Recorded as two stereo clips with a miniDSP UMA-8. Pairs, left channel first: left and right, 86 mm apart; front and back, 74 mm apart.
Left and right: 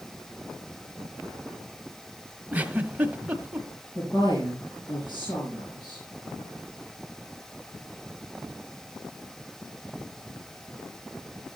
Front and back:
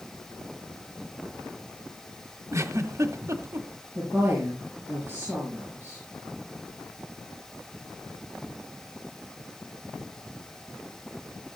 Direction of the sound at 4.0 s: 120° left.